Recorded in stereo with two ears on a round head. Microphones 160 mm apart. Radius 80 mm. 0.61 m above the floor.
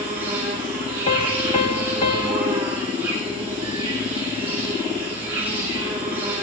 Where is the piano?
35° left (ahead or behind), 1.4 m.